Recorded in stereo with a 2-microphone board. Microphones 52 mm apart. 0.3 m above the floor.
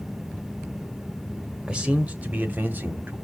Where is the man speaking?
15° right (ahead or behind), 0.9 m; by 3.2 s 35° right (ahead or behind), 1.5 m.